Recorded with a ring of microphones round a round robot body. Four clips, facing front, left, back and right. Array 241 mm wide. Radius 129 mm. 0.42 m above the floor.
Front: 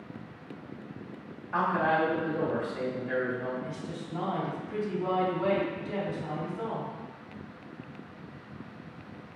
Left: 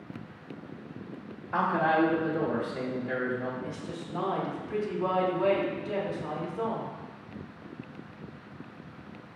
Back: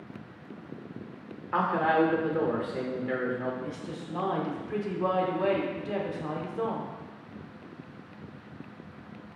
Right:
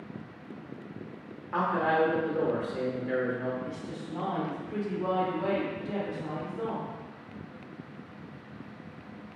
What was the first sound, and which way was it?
A man speaking, 165° right.